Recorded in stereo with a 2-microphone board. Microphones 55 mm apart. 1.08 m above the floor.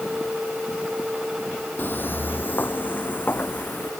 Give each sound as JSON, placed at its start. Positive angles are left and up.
{"t": 1.8, "sound": "footsteps", "side_deg": 40}